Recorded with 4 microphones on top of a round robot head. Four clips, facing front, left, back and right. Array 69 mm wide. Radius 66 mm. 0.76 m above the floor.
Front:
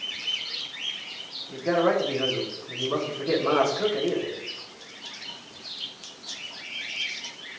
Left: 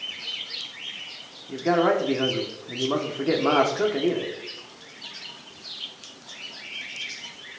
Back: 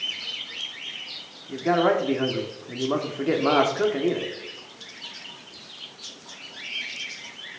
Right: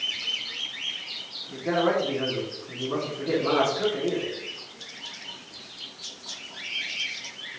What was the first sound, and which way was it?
A man speaking, 135° left.